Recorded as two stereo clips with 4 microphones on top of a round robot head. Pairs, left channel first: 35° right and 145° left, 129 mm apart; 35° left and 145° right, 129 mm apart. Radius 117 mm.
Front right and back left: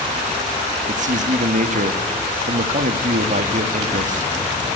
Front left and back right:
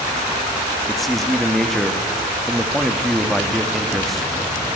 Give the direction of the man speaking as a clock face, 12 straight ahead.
8 o'clock.